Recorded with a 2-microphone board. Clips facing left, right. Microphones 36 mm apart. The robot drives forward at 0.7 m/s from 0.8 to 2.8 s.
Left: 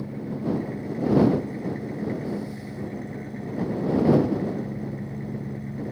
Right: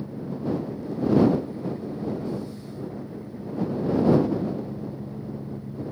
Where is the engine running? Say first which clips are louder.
Left 1 dB; 75° left (ahead or behind); by 5.9 s 80° left.